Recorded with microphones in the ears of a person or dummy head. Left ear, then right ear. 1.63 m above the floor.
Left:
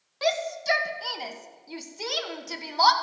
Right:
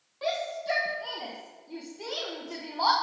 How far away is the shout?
About 1.7 m.